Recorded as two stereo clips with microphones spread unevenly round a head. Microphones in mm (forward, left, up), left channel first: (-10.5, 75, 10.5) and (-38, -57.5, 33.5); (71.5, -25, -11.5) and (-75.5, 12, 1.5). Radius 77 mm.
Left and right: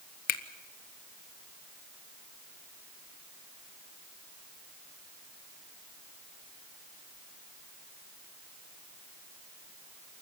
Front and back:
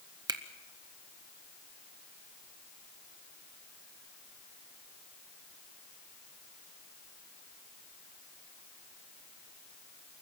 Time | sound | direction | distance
0.3 | a finger snap | 100° left | 1.2 m